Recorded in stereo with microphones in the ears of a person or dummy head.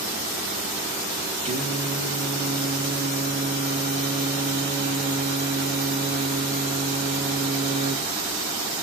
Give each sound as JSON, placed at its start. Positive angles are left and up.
{"t": 1.4, "sound": "singing", "side_deg": -35, "distance_m": 1.2}